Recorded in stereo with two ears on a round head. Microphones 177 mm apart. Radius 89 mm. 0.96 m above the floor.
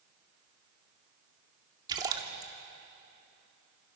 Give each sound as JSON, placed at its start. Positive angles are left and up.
{"t": 1.9, "sound": "a splash", "side_deg": -20, "distance_m": 2.0}